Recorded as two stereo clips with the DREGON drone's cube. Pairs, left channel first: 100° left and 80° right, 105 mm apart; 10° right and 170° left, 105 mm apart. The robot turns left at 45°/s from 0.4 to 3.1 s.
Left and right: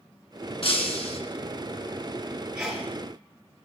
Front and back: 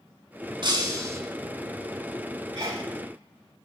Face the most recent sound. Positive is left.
turn(degrees=175)